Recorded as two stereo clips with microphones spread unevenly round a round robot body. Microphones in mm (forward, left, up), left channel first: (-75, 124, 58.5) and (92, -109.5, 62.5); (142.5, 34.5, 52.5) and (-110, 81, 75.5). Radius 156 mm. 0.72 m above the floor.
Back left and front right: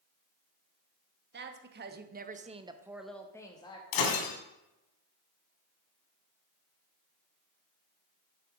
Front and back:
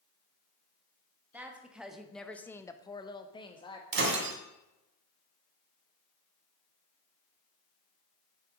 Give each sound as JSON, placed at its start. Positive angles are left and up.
{"t": 1.3, "sound": "a woman speaking", "azimuth_deg": -105, "distance_m": 1.4}
{"t": 3.9, "sound": "breaking glass", "azimuth_deg": 125, "distance_m": 2.0}